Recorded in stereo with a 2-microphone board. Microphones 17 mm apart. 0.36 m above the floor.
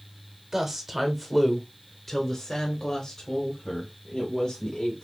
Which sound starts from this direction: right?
A woman speaking, at 0.5 s.